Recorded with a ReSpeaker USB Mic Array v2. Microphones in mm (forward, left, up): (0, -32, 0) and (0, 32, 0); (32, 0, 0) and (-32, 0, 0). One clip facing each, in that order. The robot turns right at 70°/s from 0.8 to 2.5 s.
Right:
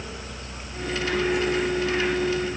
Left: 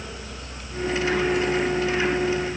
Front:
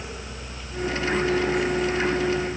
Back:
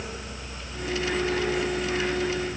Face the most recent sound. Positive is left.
No sound to turn to.